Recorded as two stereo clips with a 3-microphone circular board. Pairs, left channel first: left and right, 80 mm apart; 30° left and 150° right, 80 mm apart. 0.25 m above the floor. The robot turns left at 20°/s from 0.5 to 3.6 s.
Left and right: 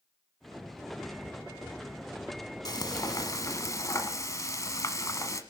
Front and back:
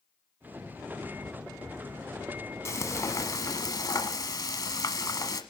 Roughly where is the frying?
Left.